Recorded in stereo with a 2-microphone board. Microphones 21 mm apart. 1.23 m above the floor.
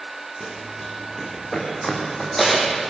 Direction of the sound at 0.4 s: 30° left (ahead or behind).